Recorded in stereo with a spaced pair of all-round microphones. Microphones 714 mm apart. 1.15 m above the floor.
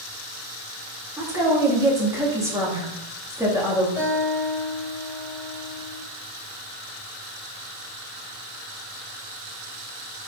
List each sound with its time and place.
1.2 s a woman speaking: 5° right (ahead or behind), 2.5 m
4.0 s a guitar: 50° left (ahead or behind), 3.5 m